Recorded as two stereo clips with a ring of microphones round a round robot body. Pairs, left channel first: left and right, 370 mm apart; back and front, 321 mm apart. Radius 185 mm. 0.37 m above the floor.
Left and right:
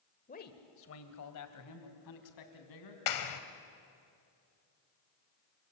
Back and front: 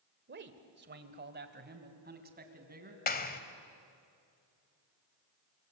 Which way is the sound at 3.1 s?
120° left.